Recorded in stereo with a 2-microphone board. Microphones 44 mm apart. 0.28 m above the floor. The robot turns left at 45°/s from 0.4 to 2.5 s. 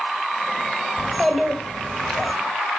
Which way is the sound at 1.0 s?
165° right.